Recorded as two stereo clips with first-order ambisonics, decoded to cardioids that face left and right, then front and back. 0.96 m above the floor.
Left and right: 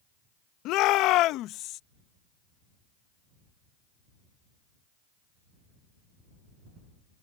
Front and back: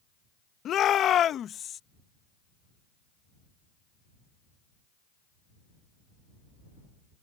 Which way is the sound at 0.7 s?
55° left.